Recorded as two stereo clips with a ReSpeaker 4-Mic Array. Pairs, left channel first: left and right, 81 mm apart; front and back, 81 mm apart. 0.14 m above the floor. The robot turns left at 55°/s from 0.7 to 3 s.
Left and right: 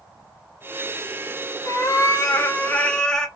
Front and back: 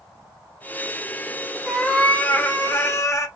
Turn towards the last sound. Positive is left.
turn(degrees=15)